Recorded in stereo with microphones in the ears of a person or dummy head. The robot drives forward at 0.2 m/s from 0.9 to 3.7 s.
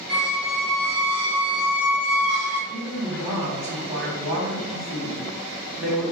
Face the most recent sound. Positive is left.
turn(degrees=-15)  # may be behind; listen again after turning